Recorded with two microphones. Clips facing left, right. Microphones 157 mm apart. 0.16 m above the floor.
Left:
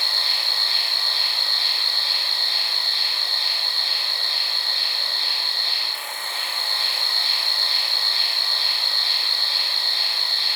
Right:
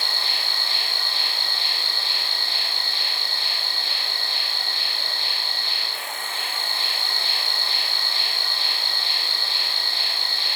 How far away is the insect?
About 0.8 m.